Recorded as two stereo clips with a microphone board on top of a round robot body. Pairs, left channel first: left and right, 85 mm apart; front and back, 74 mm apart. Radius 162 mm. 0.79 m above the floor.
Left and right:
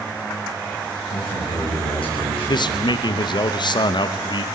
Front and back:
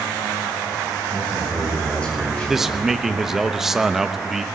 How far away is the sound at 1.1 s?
About 7 m.